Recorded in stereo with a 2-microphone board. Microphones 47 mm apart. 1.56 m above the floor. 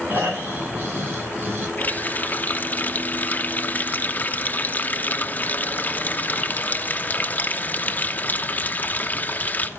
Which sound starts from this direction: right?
Snoring, at 0.1 s.